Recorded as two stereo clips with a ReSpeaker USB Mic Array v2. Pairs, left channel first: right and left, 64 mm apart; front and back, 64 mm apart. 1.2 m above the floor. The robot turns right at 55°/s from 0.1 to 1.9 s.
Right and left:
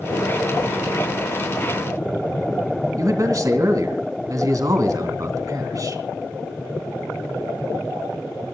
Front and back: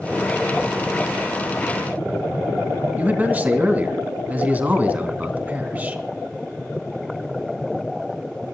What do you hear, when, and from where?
3.0 s a man speaking: 115° left, 2.5 m